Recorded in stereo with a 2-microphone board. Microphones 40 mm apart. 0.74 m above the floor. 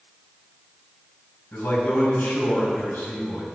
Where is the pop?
No pop in this recording.